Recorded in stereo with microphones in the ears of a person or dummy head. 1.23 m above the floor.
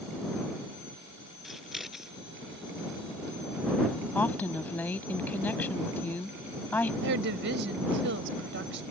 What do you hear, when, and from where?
1.4 s scissors: centre (ahead or behind)
4.2 s a woman speaking: 10° left (ahead or behind)
7.0 s a woman speaking: 65° right (ahead or behind)